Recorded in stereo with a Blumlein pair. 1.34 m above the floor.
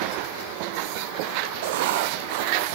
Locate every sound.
1.6 s writing: 50° right, 0.8 m